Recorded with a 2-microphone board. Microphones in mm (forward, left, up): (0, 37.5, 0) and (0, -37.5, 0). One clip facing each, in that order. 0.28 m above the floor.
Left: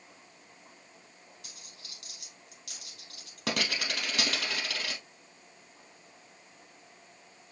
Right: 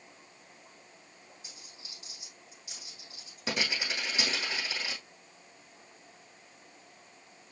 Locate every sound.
1.4 s a dropped coin: 65° left (ahead or behind), 4 m